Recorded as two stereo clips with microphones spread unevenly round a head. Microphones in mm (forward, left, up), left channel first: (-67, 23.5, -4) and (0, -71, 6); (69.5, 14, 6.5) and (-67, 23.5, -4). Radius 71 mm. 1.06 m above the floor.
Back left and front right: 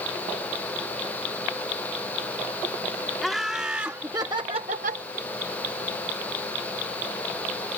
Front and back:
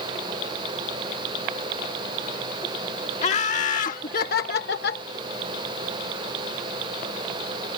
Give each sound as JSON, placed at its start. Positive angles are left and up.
{"t": 3.2, "sound": "laughter", "azimuth_deg": 35}